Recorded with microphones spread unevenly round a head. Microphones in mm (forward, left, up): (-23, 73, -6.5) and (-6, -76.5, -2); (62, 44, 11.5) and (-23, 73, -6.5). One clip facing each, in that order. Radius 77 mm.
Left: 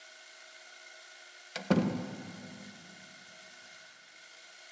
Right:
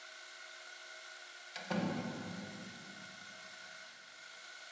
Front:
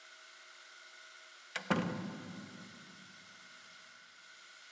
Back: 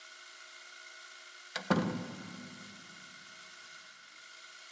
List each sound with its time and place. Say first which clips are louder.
0.0 s a machine running: even, back 4 dB; 155° left, 1.4 m
1.6 s a door slam: left 8 dB, back 3 dB; 85° left, 0.6 m